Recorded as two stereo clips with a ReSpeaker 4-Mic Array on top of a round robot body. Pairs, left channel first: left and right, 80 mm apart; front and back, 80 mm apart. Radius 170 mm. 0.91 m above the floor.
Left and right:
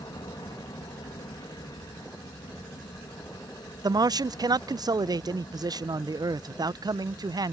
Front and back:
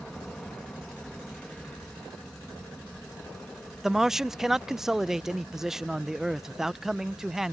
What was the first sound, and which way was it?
An aircraft, 80° left.